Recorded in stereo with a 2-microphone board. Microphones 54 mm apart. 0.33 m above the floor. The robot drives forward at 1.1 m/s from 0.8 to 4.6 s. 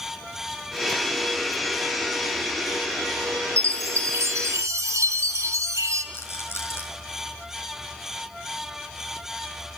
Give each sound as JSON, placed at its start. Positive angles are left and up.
{"t": 3.6, "sound": "a chime", "side_deg": -50, "distance_m": 3.0}
{"t": 6.1, "sound": "a rattle", "side_deg": 50, "distance_m": 4.5}